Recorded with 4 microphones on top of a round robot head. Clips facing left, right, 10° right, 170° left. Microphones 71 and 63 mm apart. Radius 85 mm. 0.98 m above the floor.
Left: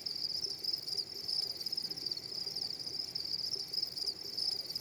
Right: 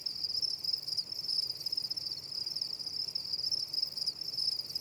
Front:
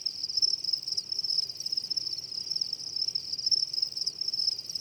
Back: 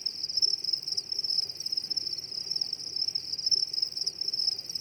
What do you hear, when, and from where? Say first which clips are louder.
0.0 s an insect: right 1 dB, even; 120° left